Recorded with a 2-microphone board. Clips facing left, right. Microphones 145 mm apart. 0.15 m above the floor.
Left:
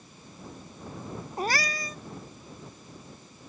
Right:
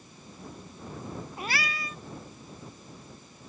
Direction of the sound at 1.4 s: 40° left (ahead or behind).